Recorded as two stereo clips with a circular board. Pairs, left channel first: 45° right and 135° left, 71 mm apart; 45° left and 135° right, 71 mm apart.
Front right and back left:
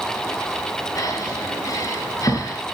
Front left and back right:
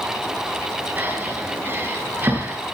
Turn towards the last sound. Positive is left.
turn(degrees=-75)